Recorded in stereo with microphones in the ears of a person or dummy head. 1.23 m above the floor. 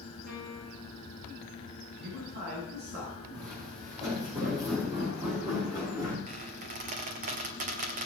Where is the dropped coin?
No dropped coin in this recording.